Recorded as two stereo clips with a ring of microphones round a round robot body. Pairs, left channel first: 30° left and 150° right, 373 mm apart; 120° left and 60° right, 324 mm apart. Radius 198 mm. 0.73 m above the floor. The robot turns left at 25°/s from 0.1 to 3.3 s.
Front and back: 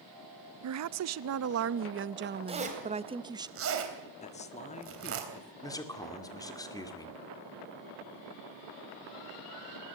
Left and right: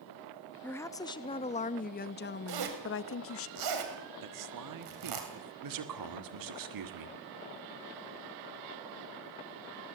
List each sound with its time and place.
0.6 s a woman speaking: 155° right, 0.7 m; by 3.5 s 135° left, 0.7 m
2.5 s a zipper: 75° right, 3.5 m; by 5.2 s 95° right, 3.5 m
4.2 s a man speaking: 40° right, 1.4 m
5.6 s a man speaking: 50° right, 1.9 m